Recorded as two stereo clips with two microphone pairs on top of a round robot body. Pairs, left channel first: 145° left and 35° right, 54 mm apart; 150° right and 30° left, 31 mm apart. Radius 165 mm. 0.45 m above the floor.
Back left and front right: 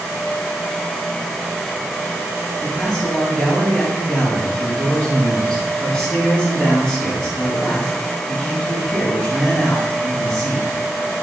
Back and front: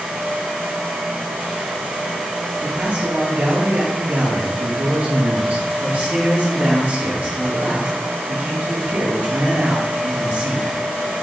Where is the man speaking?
80° left, 4 m.